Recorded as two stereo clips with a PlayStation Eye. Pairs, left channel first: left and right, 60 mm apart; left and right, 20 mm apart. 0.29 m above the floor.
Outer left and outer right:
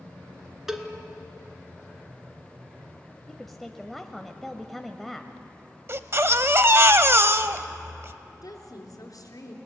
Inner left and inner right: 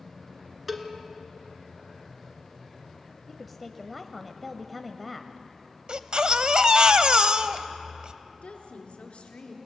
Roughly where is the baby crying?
Right.